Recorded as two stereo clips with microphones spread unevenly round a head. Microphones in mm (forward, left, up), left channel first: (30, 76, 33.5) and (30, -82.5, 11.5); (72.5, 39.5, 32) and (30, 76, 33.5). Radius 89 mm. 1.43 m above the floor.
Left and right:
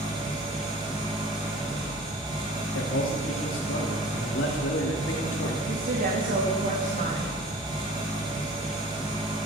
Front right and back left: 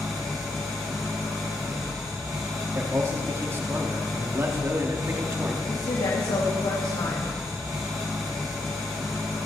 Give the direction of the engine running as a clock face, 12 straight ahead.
5 o'clock.